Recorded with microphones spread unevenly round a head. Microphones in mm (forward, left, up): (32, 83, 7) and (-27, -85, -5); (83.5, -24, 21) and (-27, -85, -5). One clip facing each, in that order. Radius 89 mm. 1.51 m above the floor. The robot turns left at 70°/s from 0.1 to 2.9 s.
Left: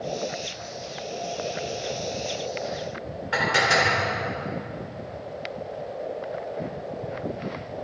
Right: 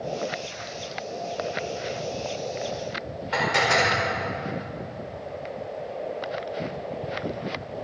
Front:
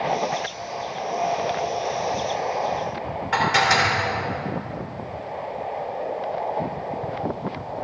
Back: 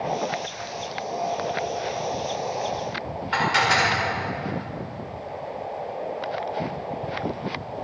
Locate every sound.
3.3 s dishes clattering: 10° right, 4 m